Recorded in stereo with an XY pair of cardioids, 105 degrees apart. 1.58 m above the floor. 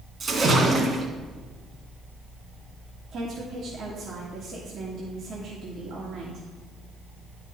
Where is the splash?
40° right, 2.5 m.